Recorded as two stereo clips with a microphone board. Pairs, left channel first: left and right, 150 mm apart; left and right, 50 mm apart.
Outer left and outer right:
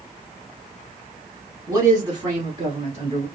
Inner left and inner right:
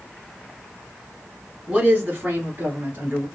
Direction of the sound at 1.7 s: 20° right (ahead or behind).